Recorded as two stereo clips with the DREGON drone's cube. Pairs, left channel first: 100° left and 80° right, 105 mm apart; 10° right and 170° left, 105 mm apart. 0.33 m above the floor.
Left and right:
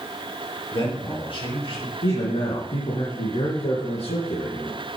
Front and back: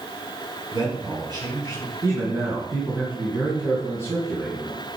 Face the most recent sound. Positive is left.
turn(degrees=110)